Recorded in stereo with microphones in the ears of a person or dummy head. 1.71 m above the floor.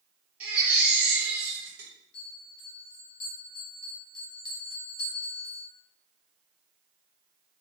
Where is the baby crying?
10° right (ahead or behind), 1.5 m.